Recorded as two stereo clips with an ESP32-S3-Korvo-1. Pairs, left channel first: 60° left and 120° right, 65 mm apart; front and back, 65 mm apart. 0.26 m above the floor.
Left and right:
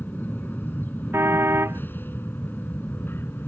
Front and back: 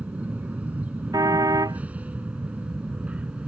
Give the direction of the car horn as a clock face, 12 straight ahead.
6 o'clock.